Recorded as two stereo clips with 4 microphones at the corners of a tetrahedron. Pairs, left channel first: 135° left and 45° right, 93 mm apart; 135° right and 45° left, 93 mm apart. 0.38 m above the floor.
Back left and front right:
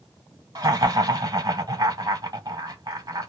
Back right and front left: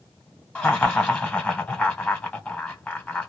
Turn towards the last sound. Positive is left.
turn(degrees=-70)